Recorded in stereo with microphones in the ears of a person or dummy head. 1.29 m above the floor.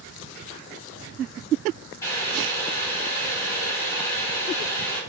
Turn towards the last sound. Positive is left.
turn(degrees=20)  # may be behind; listen again after turning